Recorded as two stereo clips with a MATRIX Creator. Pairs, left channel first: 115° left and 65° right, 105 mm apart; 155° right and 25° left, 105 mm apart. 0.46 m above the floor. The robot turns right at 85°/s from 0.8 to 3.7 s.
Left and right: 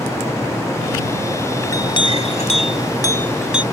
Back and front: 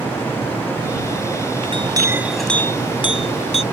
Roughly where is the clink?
Ahead left.